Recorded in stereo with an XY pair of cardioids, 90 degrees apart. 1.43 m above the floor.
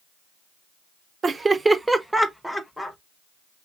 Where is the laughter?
40° right, 0.9 m; by 3.0 s 15° left, 1.3 m.